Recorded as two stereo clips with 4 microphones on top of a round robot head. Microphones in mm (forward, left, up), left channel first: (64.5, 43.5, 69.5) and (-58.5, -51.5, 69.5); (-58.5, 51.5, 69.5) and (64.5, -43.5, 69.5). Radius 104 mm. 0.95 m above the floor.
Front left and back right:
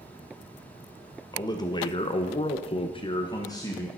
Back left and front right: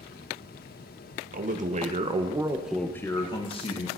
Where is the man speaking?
25° right, 1.6 m; by 3.9 s 105° left, 1.6 m.